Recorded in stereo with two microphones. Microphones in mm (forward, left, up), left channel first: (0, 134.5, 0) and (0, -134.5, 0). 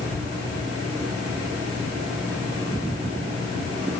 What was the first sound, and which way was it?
Only background noise.